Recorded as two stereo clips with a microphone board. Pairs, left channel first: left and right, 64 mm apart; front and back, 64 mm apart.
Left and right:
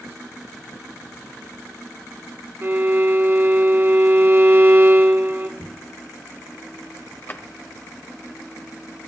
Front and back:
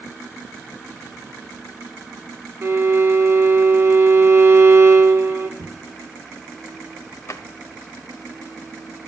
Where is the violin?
135° right, 1.7 m.